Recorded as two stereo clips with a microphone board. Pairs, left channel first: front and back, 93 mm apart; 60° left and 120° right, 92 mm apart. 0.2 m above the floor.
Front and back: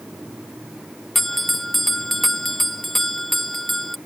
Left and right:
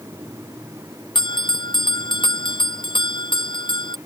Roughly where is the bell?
Left.